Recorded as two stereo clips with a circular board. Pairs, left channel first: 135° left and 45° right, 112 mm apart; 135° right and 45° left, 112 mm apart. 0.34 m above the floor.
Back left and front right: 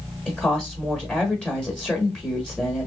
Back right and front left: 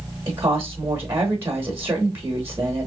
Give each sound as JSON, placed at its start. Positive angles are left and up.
{"t": 0.3, "sound": "a woman speaking", "azimuth_deg": 70, "distance_m": 0.9}